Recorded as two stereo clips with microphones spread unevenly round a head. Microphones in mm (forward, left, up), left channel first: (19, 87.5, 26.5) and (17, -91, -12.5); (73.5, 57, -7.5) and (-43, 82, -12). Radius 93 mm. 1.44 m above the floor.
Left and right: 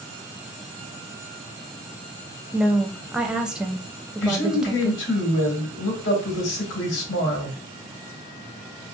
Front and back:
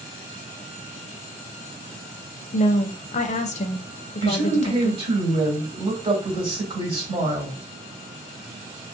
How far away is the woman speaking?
About 0.5 m.